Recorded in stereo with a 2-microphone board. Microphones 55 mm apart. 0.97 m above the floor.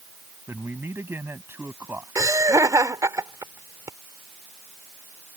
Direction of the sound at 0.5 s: 45° right (ahead or behind).